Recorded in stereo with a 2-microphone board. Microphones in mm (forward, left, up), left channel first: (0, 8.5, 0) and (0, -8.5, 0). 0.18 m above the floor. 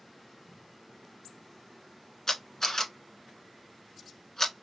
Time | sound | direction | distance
2.3 | a camera shutter | 25° left (ahead or behind) | 0.7 m